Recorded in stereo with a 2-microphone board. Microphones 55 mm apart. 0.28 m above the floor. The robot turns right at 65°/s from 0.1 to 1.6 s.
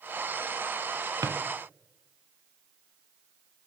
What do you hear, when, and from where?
1.2 s a drawer: 75° right (ahead or behind), 0.6 m; by 1.4 s 80° right, 0.6 m